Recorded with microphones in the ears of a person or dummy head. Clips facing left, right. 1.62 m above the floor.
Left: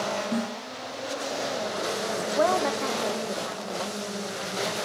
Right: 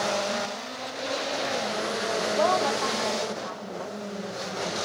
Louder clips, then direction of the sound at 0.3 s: Left 3 dB; 45° left (ahead or behind).